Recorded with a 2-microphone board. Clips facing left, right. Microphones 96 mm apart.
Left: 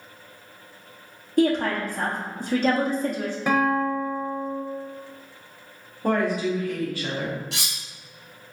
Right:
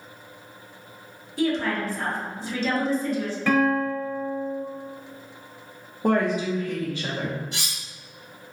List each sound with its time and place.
1.4 s a woman speaking: 50° left (ahead or behind), 0.9 m
3.5 s a guitar: 20° left (ahead or behind), 0.7 m
6.0 s a woman speaking: 20° right (ahead or behind), 0.7 m
7.5 s cutlery clinking: 85° left, 0.6 m